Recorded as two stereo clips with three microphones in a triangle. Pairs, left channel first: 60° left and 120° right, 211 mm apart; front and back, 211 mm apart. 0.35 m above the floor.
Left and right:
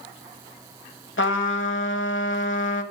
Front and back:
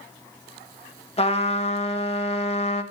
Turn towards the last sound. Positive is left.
turn(degrees=60)